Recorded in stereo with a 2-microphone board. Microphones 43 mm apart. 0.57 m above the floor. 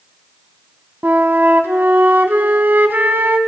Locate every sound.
1.0 s a flute: 50° right (ahead or behind), 1.4 m